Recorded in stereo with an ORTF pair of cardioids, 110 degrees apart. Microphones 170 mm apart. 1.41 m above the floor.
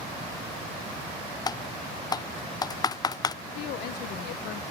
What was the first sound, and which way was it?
Typing on a keyboard, 25° left.